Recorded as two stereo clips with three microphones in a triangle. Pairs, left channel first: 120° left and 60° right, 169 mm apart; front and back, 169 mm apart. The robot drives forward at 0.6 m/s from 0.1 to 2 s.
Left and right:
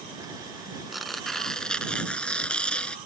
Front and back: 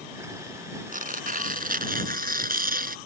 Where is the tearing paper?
150° right; by 3.0 s 155° right.